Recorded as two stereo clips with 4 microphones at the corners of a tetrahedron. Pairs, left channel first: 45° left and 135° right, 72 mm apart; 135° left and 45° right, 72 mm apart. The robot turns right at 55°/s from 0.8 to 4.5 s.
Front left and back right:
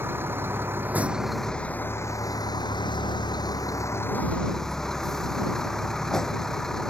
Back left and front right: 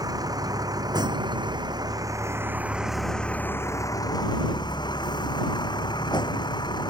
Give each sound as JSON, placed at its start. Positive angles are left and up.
{"t": 0.0, "sound": "a vehicle", "azimuth_deg": -75}